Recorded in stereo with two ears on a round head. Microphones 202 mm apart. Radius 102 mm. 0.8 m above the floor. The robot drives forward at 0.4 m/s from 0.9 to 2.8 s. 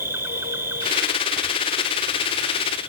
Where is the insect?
10° right (ahead or behind); by 2.9 s 5° right (ahead or behind).